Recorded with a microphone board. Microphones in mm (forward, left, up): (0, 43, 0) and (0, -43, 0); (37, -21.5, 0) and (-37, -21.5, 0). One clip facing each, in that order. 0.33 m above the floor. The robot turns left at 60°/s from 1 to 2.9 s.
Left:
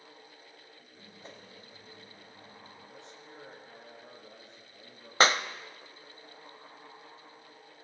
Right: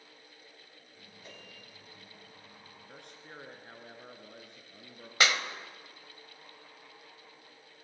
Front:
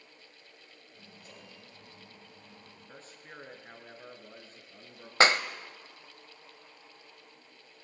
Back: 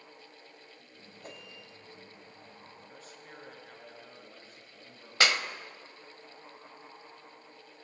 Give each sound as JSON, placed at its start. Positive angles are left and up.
{"t": 1.2, "sound": "a whoosh", "azimuth_deg": 145, "distance_m": 3.0}
{"t": 2.9, "sound": "a man speaking", "azimuth_deg": -55, "distance_m": 4.0}
{"t": 5.2, "sound": "a clap", "azimuth_deg": 45, "distance_m": 0.9}